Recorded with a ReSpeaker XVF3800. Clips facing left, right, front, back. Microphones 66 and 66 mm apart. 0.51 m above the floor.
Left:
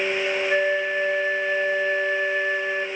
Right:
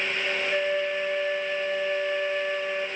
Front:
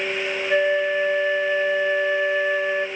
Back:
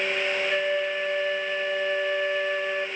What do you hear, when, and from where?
0.5 s a flute: 70° left, 1.0 m